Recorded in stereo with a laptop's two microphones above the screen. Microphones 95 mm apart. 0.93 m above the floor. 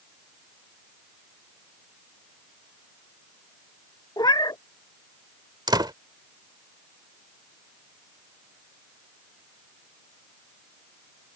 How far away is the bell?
I don't hear a bell.